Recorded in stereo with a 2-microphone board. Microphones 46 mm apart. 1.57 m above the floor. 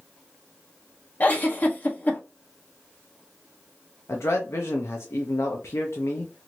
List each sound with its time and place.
1.2 s a giggle: 35° left (ahead or behind), 0.9 m
4.1 s a man speaking: 80° left, 0.6 m